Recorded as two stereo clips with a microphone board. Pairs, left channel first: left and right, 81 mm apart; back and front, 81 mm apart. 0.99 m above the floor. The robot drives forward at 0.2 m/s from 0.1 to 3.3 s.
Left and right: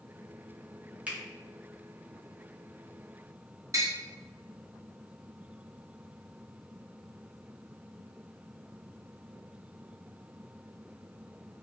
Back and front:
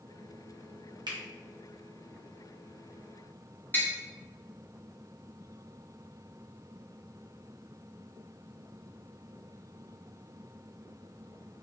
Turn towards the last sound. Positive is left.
turn(degrees=-120)